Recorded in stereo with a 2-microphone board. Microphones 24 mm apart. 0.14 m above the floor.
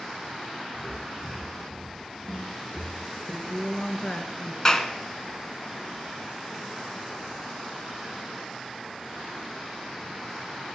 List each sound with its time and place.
0.7 s footsteps: 20° left (ahead or behind), 6 m; by 3.0 s 15° right (ahead or behind), 3.5 m
3.3 s a woman speaking: 35° left (ahead or behind), 2.0 m
4.7 s a clap: 25° left (ahead or behind), 1.1 m